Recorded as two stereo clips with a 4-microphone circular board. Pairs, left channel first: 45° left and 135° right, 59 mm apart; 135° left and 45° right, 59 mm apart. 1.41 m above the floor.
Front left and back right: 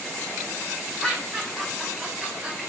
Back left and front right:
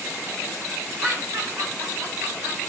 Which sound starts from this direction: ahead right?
Laughter, at 1.0 s.